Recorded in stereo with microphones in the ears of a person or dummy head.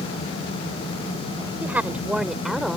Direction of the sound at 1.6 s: 10° right (ahead or behind).